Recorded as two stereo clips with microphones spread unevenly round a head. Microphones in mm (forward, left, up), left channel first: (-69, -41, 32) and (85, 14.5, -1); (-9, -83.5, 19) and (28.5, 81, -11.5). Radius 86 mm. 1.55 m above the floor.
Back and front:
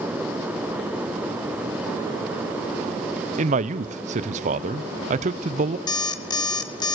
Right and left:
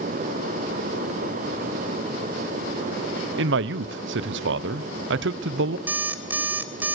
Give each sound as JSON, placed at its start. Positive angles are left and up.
{"t": 3.4, "sound": "a man speaking", "azimuth_deg": 65, "distance_m": 0.8}
{"t": 5.9, "sound": "an alarm clock", "azimuth_deg": 165, "distance_m": 1.3}